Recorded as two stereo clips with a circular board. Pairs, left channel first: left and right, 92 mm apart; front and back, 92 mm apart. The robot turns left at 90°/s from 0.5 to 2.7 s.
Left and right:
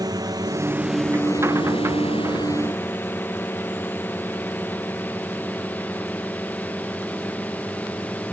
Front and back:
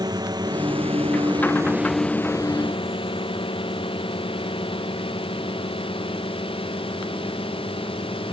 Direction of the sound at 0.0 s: 135° right.